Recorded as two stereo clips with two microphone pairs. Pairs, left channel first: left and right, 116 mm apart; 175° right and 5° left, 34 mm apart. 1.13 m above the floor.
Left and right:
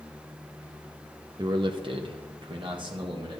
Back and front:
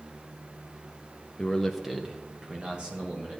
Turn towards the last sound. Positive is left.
turn(degrees=-45)